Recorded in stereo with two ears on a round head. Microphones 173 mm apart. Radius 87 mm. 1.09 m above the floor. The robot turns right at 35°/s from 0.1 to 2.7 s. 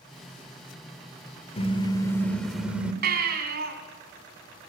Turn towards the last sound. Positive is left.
turn(degrees=-50)  # may be behind; listen again after turning